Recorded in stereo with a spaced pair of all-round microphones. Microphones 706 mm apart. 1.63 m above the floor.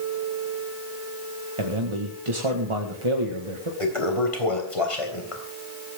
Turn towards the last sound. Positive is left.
turn(degrees=45)  # may be behind; listen again after turning